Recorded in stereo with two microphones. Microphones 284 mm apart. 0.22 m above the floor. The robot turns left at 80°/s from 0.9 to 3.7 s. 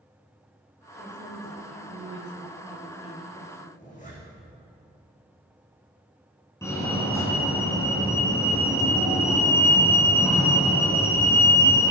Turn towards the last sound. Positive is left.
turn(degrees=10)  # may be behind; listen again after turning